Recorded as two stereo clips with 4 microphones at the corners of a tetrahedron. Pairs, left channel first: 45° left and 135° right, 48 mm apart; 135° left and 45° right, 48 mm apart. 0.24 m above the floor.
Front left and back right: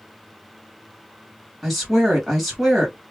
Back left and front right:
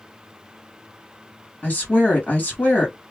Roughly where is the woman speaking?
Behind left.